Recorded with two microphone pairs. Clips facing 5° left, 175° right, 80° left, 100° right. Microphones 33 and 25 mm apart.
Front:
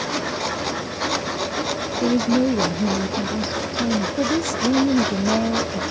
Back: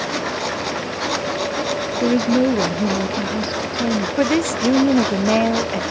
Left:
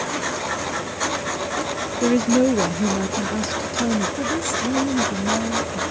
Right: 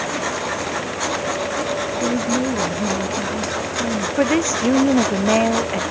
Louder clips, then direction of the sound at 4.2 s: Back 3 dB, right 5 dB; 140° right.